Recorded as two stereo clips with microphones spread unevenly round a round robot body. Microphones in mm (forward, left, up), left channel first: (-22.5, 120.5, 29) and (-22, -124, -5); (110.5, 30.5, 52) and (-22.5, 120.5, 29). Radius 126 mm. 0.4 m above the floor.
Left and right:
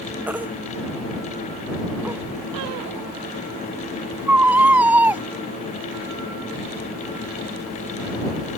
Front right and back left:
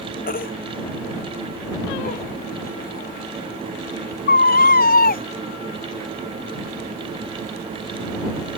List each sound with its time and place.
0.3 s a baby crying: 5° right